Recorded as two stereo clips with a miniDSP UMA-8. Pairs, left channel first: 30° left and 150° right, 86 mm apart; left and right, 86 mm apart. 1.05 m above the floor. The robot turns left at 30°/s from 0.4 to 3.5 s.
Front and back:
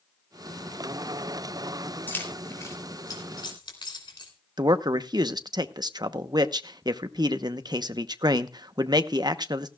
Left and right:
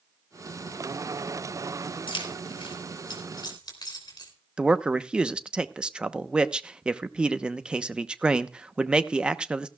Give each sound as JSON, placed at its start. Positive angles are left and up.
{"t": 2.1, "sound": "keys jangling", "azimuth_deg": 100, "distance_m": 3.0}
{"t": 4.6, "sound": "a man speaking", "azimuth_deg": -165, "distance_m": 0.8}